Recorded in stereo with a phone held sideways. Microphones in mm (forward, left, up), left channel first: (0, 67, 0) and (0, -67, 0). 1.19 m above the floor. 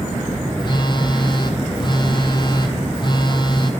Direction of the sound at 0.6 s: 35° left (ahead or behind).